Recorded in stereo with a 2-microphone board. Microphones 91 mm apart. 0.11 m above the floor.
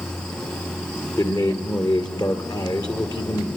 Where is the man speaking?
50° left (ahead or behind), 2.5 m.